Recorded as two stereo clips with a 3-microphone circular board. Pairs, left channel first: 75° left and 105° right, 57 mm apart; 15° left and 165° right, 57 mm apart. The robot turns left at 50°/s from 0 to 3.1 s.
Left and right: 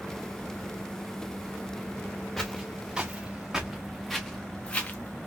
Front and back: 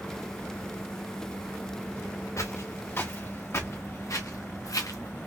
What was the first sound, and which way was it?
Footsteps, 10° right.